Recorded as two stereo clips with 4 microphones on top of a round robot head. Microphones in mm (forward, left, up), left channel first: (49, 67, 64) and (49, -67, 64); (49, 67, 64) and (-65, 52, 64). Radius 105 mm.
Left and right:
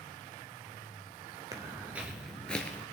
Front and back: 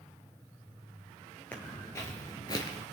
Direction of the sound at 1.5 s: 60° right.